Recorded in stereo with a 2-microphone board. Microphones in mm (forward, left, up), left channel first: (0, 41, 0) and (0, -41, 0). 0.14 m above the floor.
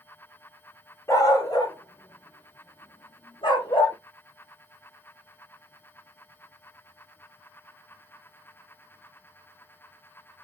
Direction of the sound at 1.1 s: 40° left (ahead or behind).